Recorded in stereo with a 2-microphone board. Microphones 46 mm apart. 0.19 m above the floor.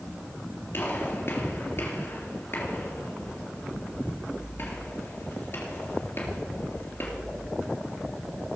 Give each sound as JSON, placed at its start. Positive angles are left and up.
{"t": 0.7, "sound": "a gunshot", "side_deg": 50, "distance_m": 3.0}